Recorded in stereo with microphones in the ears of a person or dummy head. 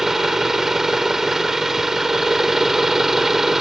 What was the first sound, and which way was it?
An engine running, 5° right (ahead or behind).